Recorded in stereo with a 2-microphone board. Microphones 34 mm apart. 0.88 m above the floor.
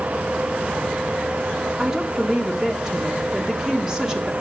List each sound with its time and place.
1.8 s a woman speaking: 20° right (ahead or behind), 1.1 m